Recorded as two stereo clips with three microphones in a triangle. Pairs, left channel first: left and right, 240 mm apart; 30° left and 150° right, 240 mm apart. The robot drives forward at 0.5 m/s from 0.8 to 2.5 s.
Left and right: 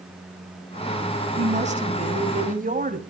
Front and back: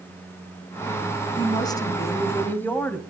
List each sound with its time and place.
1.4 s a woman speaking: 35° right, 2.5 m; by 3.0 s 50° right, 2 m